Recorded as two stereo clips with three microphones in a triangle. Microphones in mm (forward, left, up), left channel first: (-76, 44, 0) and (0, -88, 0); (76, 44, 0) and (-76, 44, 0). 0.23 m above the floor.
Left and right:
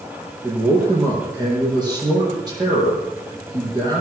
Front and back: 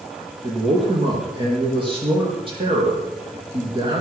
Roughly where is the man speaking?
Behind right.